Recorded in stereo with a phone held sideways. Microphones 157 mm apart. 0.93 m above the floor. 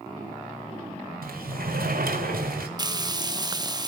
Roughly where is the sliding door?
Right.